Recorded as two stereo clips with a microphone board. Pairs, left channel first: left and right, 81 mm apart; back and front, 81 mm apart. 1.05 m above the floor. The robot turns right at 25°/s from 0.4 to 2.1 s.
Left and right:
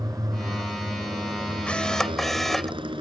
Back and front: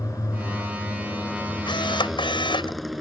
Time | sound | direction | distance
0.0 | a motorcycle | 135° right | ?
1.7 | a camera shutter | 165° left | ?